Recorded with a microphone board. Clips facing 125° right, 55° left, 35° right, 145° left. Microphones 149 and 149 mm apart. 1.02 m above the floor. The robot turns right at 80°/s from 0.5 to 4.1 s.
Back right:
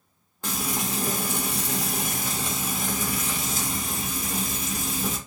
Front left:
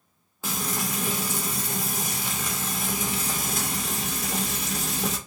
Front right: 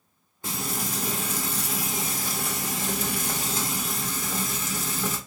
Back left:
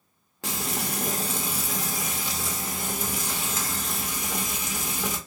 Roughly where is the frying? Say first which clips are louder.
Back right 1 dB, back left 1 dB; behind left.